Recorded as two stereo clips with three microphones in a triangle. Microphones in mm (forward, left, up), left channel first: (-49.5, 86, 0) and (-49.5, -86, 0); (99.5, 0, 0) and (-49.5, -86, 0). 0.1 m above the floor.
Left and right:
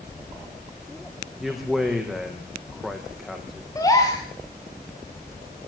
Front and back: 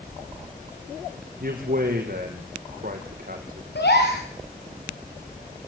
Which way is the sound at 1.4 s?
Straight behind.